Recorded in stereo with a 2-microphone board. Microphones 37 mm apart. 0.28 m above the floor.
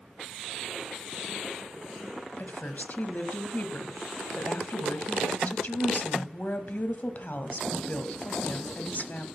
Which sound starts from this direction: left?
A woman speaking, at 2.4 s.